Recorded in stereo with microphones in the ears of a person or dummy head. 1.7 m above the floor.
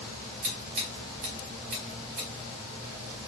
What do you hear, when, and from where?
0.4 s scissors: 35° right (ahead or behind), 1.5 m